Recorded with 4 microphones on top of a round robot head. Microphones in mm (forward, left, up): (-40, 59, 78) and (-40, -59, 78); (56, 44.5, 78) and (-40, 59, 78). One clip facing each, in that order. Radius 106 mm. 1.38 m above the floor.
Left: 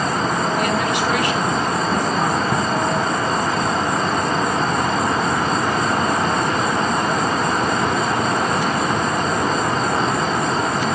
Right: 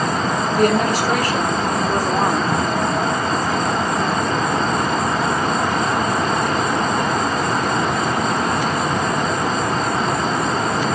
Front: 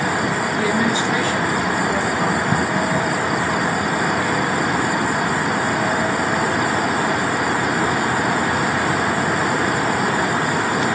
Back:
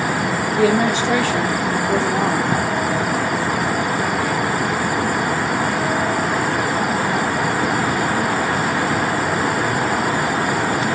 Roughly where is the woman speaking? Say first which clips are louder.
Right 3 dB, back 5 dB; behind right.